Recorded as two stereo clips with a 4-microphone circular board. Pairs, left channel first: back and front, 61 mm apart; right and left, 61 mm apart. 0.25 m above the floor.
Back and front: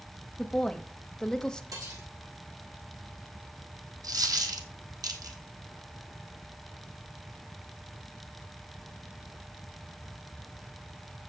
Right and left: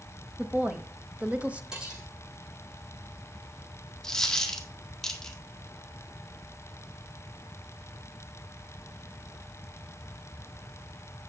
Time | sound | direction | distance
0.4 | a woman speaking | 115° left | 1.0 m
1.7 | cutlery clinking | 15° left | 6.5 m
4.0 | a dropped coin | 10° right | 1.4 m